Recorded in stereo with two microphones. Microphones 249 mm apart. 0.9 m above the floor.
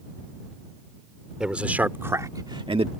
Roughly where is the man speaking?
Centre.